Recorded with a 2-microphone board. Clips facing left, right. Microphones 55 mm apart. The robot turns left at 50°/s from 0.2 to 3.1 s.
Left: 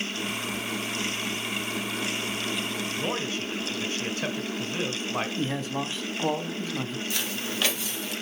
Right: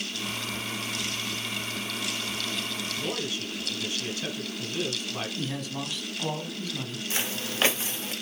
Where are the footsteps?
25° right (ahead or behind), 1.5 m; by 8.1 s 30° right (ahead or behind), 2 m.